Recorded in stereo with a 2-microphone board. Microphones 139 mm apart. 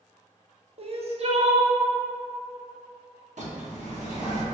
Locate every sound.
0.8 s crying: 50° right (ahead or behind), 0.5 m
3.4 s a bird: 65° right (ahead or behind), 0.9 m